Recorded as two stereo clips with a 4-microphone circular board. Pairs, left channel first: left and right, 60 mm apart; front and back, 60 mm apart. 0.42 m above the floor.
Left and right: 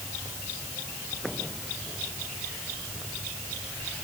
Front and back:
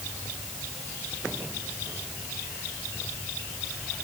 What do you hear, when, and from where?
Only background noise.